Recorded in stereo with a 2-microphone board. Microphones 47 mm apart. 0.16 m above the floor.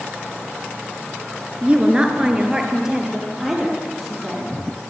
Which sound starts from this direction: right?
A woman speaking, at 1.6 s.